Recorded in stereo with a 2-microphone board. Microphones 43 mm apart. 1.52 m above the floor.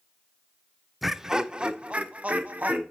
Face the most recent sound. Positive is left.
turn(degrees=-40)  # may be behind; listen again after turning